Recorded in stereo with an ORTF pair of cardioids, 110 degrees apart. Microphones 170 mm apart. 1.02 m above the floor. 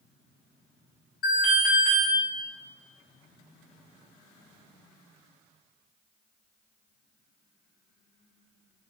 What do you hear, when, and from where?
1.2 s an alarm: 65° left, 2.5 m